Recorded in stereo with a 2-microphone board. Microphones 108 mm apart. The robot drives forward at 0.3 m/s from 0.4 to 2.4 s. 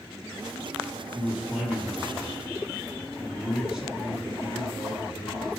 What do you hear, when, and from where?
1.1 s a man speaking: 5° right (ahead or behind), 2 m